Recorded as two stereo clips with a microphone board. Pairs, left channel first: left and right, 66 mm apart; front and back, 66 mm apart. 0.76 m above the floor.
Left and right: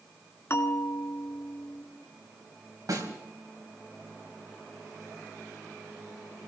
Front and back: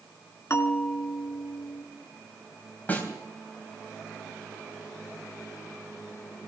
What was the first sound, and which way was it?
A bell, 45° left.